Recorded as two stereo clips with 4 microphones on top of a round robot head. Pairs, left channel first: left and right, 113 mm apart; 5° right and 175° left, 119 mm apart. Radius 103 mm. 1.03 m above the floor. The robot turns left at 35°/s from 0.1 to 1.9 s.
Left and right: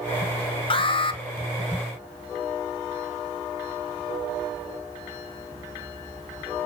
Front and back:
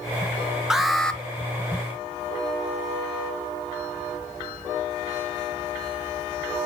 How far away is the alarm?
About 1.3 m.